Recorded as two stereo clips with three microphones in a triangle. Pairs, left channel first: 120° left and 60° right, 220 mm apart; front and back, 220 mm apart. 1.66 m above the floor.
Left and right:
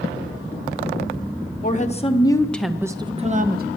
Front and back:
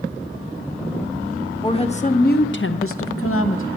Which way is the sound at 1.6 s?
70° left.